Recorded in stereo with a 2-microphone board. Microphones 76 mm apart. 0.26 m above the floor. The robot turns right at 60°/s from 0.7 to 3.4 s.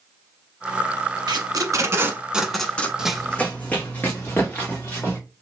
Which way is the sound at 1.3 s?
70° right (ahead or behind).